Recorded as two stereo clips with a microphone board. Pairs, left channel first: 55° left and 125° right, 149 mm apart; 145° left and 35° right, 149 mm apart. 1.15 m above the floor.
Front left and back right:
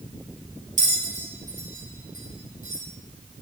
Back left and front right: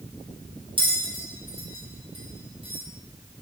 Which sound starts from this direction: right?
A bell, at 0.8 s.